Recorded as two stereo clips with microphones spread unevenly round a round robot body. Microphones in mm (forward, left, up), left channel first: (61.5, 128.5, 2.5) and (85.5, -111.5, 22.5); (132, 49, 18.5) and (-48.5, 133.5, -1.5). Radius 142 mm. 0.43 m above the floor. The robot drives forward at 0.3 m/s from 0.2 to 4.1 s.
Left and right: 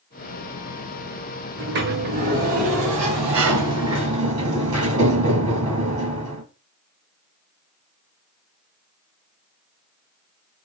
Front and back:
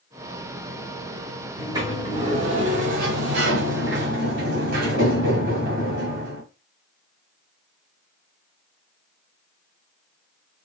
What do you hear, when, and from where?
1.6 s a sliding door: 130° right, 0.7 m; by 6.4 s 160° right, 1.3 m